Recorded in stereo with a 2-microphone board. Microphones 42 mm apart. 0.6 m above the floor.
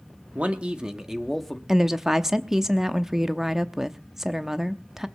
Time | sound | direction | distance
0.3 | a man speaking | 30° right (ahead or behind) | 1.5 m
1.7 | a woman speaking | 5° right (ahead or behind) | 0.7 m